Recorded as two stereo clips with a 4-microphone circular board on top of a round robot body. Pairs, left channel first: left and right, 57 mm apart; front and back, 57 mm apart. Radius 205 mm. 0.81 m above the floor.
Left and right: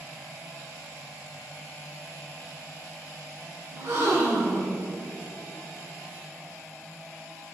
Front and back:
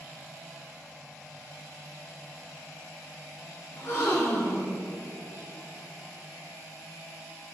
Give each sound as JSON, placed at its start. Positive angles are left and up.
{"t": 3.7, "sound": "a gasp", "azimuth_deg": -55, "distance_m": 3.0}